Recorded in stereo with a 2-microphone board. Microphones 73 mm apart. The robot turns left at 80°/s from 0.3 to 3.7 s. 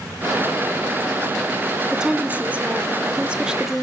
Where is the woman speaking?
10° right (ahead or behind), 1.1 m; by 3.8 s 5° right (ahead or behind), 1.1 m.